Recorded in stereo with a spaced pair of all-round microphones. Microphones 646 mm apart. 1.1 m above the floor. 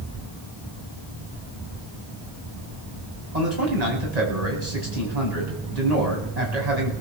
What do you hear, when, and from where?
3.3 s a man speaking: 80° right, 8.5 m